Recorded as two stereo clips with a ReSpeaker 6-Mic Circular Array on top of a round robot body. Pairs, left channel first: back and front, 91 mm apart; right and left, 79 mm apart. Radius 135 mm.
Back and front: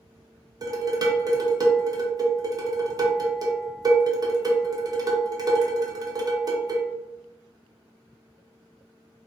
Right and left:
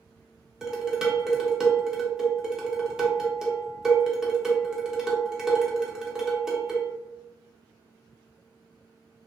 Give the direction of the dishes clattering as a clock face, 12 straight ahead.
12 o'clock.